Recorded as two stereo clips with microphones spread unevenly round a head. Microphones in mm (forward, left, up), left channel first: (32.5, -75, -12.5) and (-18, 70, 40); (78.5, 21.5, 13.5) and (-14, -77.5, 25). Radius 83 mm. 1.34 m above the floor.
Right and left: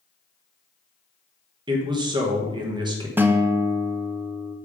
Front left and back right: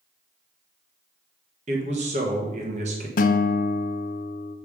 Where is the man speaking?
175° left, 1.4 m.